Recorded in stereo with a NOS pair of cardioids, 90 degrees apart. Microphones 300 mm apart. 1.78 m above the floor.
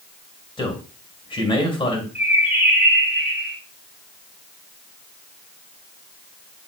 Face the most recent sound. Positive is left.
turn(degrees=-5)